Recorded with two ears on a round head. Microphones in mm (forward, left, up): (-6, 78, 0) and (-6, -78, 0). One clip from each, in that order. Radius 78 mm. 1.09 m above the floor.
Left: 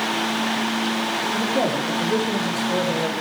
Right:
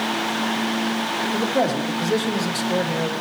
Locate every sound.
1.3 s a man speaking: 70° right (ahead or behind), 1.9 m; by 3.1 s 40° right (ahead or behind), 1.5 m